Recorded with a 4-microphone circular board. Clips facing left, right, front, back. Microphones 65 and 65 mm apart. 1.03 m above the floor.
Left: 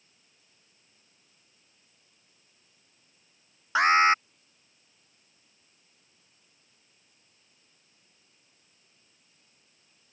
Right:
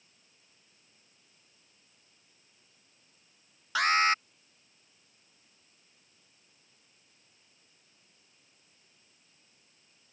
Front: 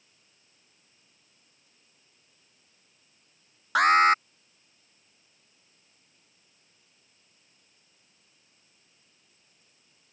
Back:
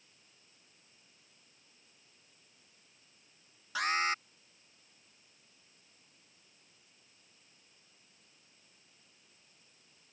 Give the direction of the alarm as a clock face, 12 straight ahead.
11 o'clock.